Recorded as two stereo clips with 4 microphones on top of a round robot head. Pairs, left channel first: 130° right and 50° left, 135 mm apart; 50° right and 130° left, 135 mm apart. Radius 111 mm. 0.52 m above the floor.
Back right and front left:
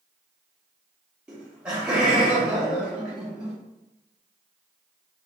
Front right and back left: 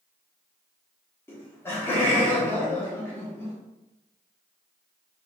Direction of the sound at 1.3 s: 20° right.